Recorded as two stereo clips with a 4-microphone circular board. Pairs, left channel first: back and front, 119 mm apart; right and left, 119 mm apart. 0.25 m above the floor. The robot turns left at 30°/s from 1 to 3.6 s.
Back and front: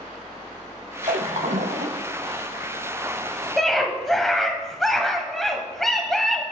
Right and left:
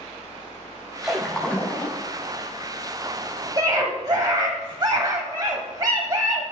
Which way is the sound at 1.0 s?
5° left.